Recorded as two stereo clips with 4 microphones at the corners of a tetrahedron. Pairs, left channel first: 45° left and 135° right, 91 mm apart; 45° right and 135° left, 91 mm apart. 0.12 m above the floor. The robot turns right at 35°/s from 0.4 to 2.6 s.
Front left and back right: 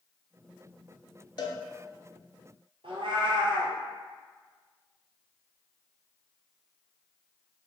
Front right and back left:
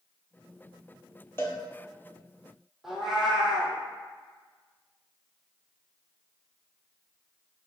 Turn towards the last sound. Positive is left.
turn(degrees=-140)